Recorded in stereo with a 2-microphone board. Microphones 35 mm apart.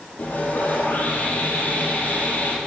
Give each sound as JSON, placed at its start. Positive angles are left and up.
{"t": 0.2, "sound": "sawing", "side_deg": 50, "distance_m": 5.5}